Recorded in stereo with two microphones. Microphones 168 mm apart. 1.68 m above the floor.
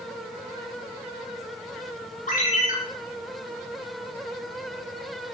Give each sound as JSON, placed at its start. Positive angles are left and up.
{"t": 2.3, "sound": "a ringtone", "side_deg": 50, "distance_m": 1.7}